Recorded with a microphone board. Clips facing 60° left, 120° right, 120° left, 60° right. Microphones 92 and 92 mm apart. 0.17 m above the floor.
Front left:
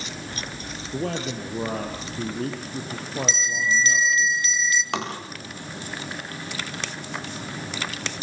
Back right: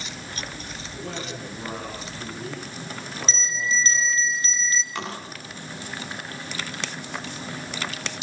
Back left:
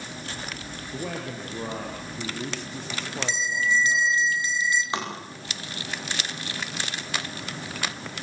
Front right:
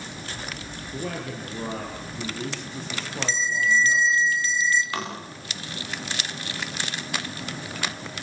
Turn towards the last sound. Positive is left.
turn(degrees=50)